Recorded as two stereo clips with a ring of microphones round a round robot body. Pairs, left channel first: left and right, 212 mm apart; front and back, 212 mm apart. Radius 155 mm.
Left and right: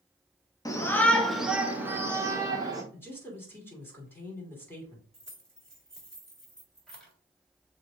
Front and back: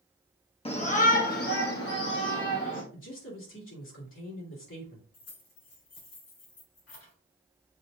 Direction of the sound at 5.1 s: 5° left.